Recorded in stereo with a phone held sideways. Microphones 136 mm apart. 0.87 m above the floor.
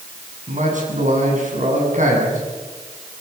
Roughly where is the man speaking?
Right.